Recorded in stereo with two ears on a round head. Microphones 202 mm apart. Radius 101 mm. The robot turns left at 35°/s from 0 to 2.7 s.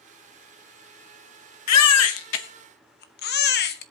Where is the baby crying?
80° left, 0.9 m; by 3.8 s 45° left (ahead or behind), 0.9 m.